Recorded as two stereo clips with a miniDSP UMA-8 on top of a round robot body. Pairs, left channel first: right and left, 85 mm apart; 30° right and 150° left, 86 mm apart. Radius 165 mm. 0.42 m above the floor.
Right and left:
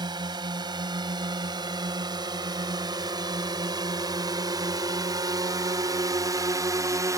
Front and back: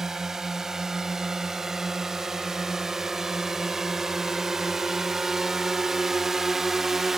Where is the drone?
65° left.